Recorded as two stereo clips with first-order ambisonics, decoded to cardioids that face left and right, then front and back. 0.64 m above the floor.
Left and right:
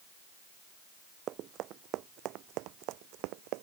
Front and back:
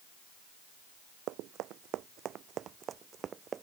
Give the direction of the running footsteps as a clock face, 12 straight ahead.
5 o'clock.